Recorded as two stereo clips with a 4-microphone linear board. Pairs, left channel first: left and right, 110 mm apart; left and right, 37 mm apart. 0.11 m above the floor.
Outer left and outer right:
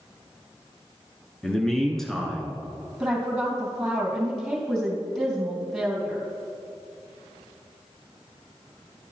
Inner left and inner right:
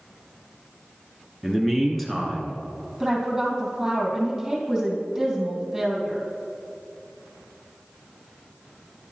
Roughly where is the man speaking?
Centre.